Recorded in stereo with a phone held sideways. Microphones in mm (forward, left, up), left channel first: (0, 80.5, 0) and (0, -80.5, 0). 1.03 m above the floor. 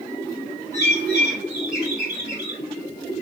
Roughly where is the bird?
Right.